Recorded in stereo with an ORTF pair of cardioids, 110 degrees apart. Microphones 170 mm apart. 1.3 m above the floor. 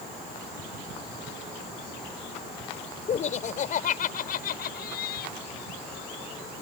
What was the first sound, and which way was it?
Laughter, 40° left.